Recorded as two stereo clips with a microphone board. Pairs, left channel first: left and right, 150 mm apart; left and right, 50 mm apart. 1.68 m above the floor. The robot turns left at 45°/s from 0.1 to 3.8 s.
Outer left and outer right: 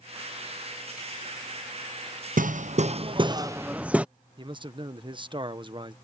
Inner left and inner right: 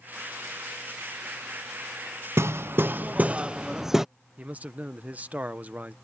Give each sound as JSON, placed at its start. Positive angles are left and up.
{"t": 2.4, "sound": "hammering", "azimuth_deg": -105}
{"t": 4.4, "sound": "a man speaking", "side_deg": -30}